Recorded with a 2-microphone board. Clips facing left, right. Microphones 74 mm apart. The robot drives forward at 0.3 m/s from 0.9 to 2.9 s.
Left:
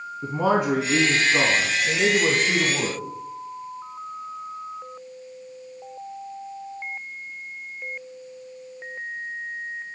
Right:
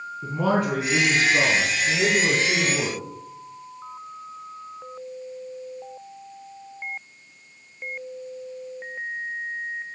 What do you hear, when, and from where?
0.2 s a man speaking: 20° left (ahead or behind), 2 m; by 3.0 s 25° left (ahead or behind), 1.6 m